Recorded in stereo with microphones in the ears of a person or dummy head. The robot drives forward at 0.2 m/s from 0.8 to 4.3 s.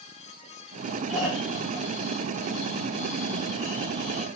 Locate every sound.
1.1 s snoring: 10° right (ahead or behind), 0.8 m; by 4.3 s 5° right (ahead or behind), 1.4 m